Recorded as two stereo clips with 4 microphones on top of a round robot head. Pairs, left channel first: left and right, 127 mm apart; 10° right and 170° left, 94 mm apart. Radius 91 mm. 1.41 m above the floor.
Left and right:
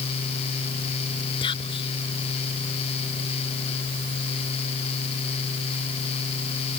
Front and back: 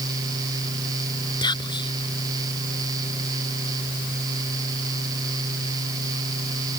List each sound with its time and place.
1.4 s whispering: 30° left